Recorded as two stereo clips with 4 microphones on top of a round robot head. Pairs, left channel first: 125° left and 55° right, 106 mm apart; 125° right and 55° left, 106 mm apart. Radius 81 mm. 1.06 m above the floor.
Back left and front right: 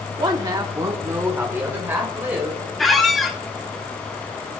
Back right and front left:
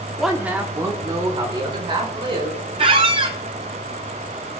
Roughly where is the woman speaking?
Ahead right.